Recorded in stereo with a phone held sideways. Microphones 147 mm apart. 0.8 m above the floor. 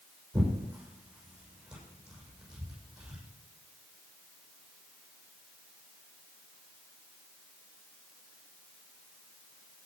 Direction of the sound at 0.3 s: 10° right (ahead or behind).